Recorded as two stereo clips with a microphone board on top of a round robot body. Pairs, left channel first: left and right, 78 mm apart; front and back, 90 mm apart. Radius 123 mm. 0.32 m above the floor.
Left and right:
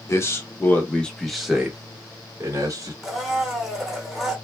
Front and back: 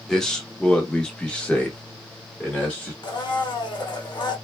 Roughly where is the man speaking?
Left.